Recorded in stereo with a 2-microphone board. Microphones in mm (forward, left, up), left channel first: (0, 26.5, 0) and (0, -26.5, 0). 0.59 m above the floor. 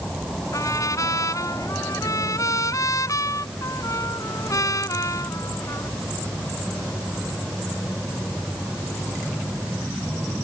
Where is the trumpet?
80° left.